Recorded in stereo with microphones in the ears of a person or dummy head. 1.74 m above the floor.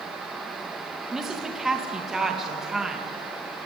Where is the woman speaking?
Centre (ahead or behind), 2.5 m.